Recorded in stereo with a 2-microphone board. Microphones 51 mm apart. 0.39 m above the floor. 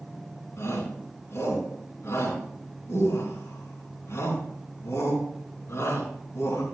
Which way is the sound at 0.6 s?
65° left (ahead or behind).